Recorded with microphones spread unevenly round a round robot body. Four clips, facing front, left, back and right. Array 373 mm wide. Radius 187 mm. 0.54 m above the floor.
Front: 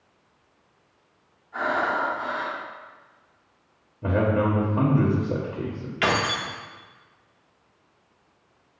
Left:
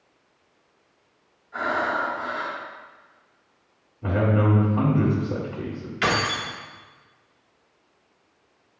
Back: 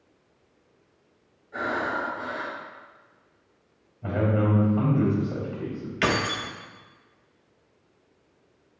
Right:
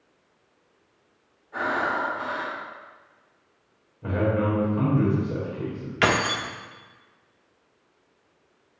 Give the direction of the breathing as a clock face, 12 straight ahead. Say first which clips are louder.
Left 1 dB, front 4 dB; 5 o'clock.